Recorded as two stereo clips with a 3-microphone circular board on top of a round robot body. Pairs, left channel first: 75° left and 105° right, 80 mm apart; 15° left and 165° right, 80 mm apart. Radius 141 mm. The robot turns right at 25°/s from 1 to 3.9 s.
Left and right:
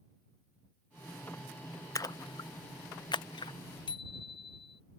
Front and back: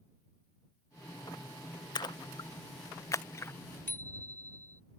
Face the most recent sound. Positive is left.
turn(degrees=80)